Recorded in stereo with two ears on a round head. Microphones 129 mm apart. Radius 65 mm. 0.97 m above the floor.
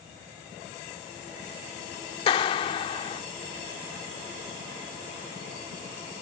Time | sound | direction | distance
2.3 | a clap | 35° left (ahead or behind) | ?